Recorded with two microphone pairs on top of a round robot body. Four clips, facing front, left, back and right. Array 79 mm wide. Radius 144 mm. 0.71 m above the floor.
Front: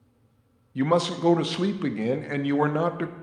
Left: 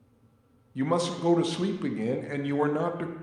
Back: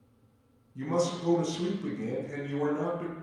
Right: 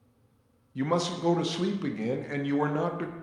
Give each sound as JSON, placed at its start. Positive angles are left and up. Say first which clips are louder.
{"t": 0.8, "sound": "a man speaking", "louder": "left 1 dB, front 6 dB", "azimuth_deg": 10, "distance_m": 1.0}